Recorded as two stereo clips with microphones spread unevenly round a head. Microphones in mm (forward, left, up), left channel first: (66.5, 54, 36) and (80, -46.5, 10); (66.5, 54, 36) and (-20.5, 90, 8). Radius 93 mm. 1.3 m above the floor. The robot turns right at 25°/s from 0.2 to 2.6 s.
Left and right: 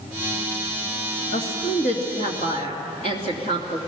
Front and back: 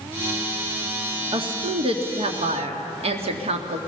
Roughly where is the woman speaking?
Behind left.